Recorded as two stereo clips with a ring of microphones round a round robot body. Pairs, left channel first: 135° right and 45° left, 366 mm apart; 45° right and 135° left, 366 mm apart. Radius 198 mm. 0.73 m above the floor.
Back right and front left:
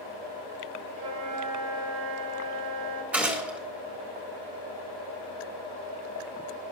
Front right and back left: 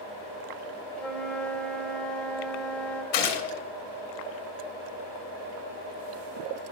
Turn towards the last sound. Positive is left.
turn(degrees=-40)